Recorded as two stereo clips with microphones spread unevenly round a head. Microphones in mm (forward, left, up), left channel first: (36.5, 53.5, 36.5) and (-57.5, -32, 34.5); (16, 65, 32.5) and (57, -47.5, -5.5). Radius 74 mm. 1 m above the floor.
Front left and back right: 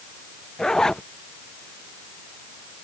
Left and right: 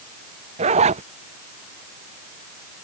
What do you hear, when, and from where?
0.6 s a zipper: 45° right